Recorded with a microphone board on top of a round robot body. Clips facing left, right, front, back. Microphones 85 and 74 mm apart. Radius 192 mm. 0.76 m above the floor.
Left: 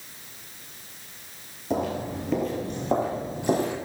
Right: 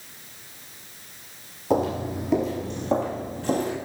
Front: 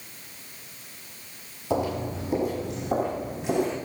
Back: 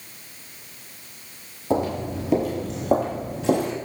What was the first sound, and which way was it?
Footsteps, 135° right.